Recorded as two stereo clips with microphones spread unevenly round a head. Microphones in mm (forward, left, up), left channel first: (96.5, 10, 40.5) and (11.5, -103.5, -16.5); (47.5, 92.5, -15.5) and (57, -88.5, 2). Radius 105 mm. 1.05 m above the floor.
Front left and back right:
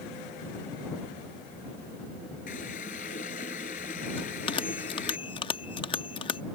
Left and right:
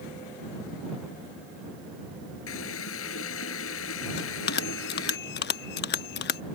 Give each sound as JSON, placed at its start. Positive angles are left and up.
{"t": 2.5, "sound": "a running tap", "azimuth_deg": 105}
{"t": 4.2, "sound": "a bell", "azimuth_deg": 80}